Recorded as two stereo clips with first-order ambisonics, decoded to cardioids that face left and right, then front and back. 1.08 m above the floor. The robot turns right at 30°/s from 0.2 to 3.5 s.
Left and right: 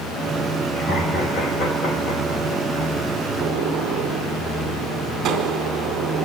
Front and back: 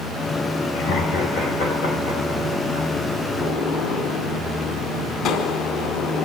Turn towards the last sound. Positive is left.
turn(degrees=-35)